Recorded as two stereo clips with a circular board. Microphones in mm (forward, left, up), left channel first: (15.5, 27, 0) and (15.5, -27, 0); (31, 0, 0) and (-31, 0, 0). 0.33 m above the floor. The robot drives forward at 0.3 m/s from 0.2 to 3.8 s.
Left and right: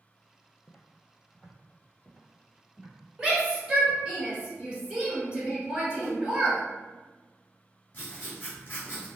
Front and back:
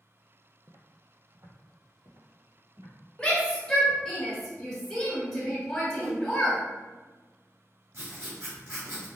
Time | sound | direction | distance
0.7 | footsteps | 150° left | 0.5 m
3.2 | a shout | 50° right | 1.3 m
6.0 | a whoosh | 155° right | 1.3 m
7.9 | writing | 145° left | 1.7 m